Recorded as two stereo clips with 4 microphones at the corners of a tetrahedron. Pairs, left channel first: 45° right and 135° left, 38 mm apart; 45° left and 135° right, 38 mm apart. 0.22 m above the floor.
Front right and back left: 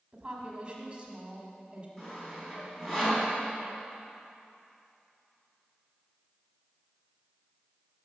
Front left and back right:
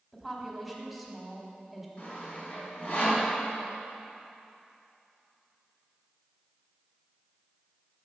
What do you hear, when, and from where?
0.1 s a woman speaking: 140° left, 1.1 m
2.0 s sawing: 20° left, 2.0 m